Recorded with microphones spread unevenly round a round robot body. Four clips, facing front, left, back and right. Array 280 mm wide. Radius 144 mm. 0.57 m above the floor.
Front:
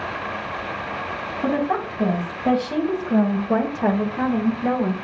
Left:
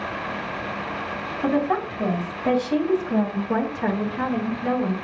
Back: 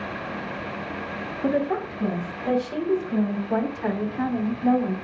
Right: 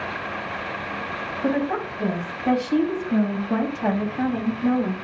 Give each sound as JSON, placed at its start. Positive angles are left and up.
{"t": 1.4, "sound": "a woman speaking", "azimuth_deg": 30, "distance_m": 4.5}